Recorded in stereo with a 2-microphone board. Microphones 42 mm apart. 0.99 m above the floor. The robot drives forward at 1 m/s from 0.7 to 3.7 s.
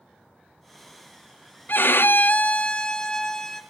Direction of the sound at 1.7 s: 55° left (ahead or behind).